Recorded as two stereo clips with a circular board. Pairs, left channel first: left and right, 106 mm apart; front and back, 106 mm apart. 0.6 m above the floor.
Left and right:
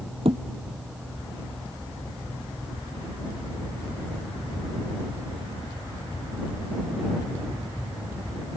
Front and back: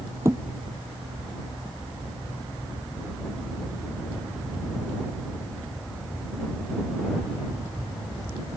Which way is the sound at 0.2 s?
115° right.